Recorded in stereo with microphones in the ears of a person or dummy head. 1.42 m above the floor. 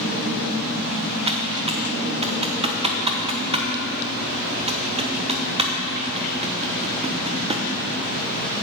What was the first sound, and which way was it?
Typing on a keyboard, 30° right (ahead or behind).